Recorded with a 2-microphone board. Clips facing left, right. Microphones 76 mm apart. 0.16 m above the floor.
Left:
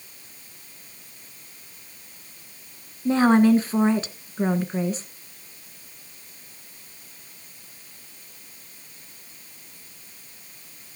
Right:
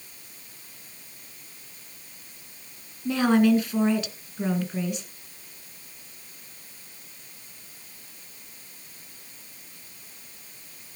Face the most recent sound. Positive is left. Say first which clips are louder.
# left 3 dB
turn(degrees=35)  # may be behind; listen again after turning